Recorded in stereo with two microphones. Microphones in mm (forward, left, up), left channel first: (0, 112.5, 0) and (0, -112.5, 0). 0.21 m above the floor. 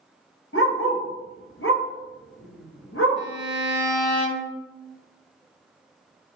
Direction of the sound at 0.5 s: 65° left (ahead or behind).